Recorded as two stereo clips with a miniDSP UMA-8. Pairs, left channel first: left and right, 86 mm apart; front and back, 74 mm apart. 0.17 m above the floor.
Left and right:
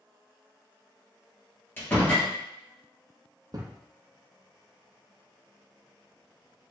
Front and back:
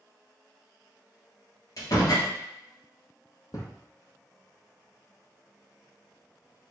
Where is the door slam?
25° left, 2 m.